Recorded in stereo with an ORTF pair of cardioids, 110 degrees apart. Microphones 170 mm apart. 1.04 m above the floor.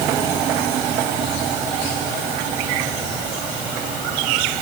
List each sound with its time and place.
Only background noise.